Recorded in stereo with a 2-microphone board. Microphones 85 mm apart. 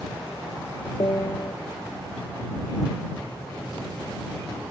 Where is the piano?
45° left (ahead or behind).